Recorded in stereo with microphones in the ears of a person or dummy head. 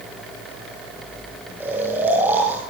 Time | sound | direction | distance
1.6 | snoring | 15° right (ahead or behind) | 5 m